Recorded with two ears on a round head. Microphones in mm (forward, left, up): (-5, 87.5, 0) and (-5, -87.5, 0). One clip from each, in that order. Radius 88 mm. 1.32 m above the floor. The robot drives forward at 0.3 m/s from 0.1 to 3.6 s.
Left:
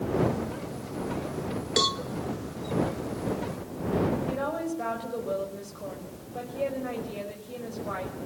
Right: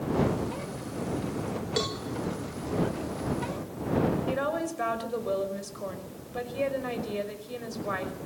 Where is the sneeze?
No sneeze in this recording.